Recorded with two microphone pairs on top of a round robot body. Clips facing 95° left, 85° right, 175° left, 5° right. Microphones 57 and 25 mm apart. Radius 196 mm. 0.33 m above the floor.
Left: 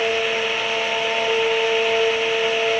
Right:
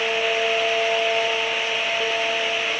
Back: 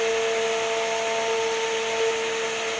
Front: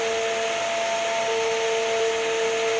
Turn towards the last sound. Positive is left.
No sound to turn to.